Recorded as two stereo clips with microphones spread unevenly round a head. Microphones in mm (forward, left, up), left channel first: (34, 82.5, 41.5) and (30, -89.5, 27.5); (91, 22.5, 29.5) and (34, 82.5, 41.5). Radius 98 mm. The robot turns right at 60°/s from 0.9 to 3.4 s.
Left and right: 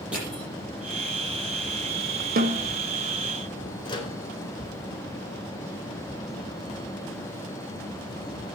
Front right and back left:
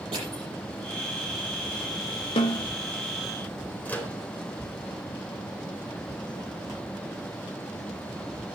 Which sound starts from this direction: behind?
Crushing, at 0.1 s.